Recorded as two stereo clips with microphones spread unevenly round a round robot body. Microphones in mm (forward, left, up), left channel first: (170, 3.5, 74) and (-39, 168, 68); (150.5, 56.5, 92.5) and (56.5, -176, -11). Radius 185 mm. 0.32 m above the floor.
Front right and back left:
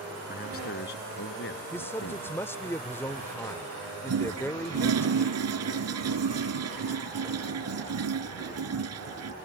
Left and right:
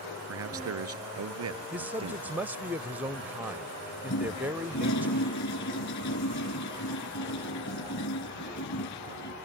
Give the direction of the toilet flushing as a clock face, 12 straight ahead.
8 o'clock.